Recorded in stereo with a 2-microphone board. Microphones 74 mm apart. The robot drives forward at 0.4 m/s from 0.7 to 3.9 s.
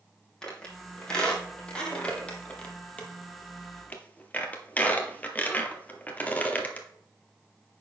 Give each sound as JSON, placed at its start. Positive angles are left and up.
{"t": 0.4, "sound": "a squeak", "side_deg": 10, "distance_m": 2.0}